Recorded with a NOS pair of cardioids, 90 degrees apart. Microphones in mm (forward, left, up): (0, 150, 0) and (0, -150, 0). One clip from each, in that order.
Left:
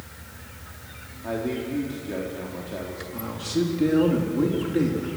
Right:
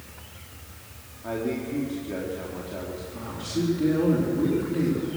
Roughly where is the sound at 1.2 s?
Ahead.